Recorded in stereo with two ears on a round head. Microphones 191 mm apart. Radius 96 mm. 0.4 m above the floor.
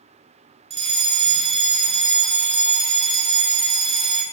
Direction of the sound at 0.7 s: 30° right (ahead or behind).